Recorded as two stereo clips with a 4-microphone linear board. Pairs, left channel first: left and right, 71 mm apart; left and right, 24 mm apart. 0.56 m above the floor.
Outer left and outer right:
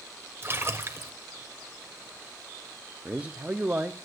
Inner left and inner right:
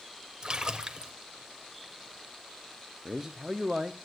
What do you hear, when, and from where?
0.4 s a splash: 35° right (ahead or behind), 0.8 m
3.0 s a man speaking: 20° right (ahead or behind), 0.6 m